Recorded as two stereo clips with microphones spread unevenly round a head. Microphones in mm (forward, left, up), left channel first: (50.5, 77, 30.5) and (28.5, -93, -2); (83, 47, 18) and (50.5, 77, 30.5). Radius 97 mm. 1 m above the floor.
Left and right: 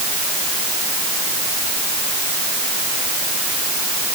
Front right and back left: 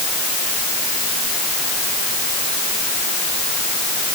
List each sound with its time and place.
Only background noise.